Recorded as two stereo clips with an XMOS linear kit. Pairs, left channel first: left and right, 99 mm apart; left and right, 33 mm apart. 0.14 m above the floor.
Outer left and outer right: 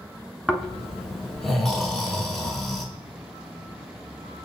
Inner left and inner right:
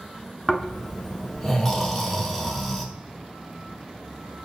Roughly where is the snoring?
Centre.